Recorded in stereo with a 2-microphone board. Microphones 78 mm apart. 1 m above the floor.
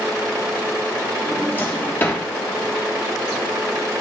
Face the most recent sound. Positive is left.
turn(degrees=25)  # may be behind; listen again after turning